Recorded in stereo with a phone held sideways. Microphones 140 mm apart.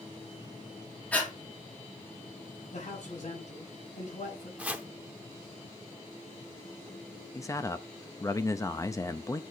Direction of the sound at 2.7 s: 60° left (ahead or behind).